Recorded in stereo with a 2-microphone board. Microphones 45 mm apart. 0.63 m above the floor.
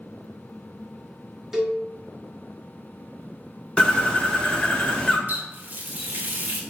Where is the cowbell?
10° right (ahead or behind), 0.7 m.